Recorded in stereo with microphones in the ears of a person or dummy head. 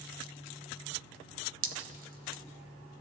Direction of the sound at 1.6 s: 40° right (ahead or behind).